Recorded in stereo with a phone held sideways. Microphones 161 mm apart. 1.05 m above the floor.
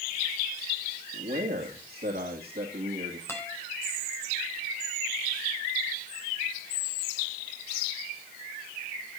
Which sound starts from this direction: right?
A man speaking, at 1.1 s.